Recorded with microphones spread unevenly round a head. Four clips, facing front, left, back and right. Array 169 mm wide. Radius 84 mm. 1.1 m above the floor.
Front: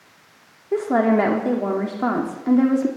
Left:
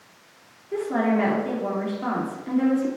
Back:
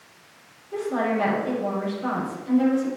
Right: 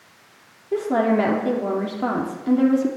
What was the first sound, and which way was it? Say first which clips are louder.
A woman speaking: right 3 dB, front 7 dB; 25° right.